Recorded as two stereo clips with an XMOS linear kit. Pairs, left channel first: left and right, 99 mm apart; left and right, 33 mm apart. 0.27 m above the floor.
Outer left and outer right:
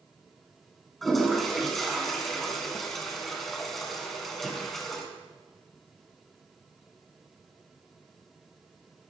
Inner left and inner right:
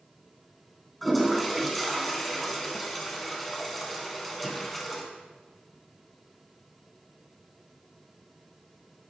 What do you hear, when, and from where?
1.0 s a toilet flushing: centre (ahead or behind), 3 m